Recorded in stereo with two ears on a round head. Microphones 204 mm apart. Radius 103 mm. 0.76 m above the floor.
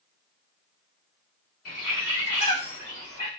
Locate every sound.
1.6 s a bird: 40° left (ahead or behind), 1.4 m